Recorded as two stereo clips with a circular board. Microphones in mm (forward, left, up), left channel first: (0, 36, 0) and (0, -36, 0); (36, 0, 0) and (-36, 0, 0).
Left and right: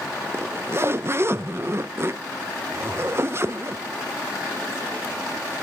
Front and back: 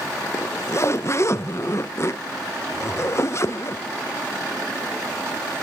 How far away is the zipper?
About 0.5 m.